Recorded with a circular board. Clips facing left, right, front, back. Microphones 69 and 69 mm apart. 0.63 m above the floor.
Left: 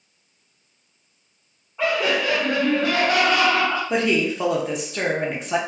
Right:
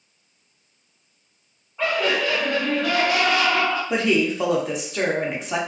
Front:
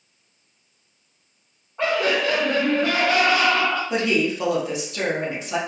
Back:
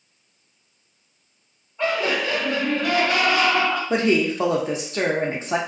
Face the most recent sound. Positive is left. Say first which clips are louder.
# right 2 dB, back 2 dB
turn(degrees=180)